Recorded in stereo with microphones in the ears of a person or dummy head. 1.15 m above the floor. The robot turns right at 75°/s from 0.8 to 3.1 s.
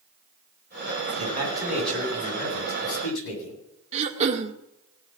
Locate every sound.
1.2 s a man speaking: 40° right, 8 m; by 3.6 s 100° left, 8 m
3.9 s throat clearing: 35° right (ahead or behind), 1.4 m